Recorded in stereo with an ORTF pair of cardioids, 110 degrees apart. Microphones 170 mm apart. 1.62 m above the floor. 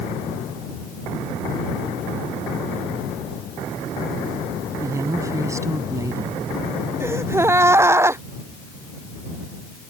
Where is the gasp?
15° right.